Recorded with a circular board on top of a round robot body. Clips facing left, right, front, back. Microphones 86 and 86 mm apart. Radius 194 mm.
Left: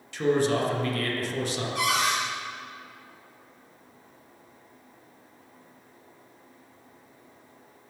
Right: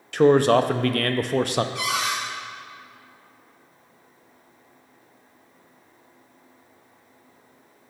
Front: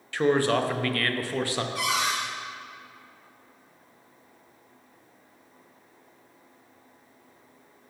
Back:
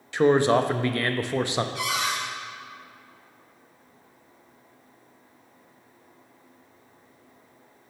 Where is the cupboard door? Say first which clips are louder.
Left 1 dB, front 1 dB; 45° left, 2.5 m.